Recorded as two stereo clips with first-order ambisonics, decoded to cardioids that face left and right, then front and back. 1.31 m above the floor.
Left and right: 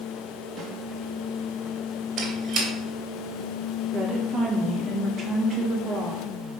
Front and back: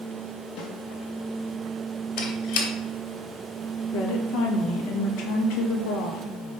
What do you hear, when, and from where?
0.6 s a snare drum: 10° right, 1.9 m
2.2 s a squeak: 20° right, 2.5 m
3.9 s a woman speaking: 10° right, 1.8 m